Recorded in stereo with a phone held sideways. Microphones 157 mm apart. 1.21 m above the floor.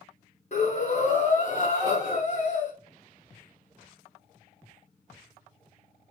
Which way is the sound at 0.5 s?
45° left (ahead or behind).